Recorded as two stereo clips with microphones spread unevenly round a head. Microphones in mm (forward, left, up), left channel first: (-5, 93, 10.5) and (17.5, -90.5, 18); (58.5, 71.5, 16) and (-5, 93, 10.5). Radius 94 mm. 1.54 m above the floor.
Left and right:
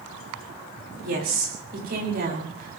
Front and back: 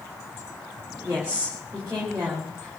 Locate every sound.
1.0 s a woman speaking: 125° right, 5.5 m